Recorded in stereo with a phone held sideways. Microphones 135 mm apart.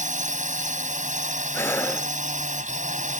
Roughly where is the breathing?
Centre.